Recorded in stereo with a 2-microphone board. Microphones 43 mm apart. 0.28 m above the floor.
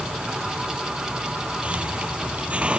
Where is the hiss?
30° right (ahead or behind).